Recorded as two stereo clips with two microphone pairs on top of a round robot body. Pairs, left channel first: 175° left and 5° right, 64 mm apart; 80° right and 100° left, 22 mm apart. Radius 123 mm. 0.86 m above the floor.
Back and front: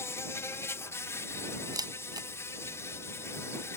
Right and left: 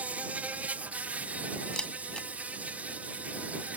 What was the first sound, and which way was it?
An insect, 120° left.